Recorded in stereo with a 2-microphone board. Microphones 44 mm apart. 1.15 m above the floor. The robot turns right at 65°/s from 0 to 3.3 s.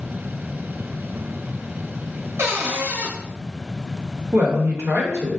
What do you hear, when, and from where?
2.4 s a cupboard door: 85° right, 0.8 m; by 3.1 s 40° right, 0.8 m
4.3 s a woman speaking: 80° right, 1.0 m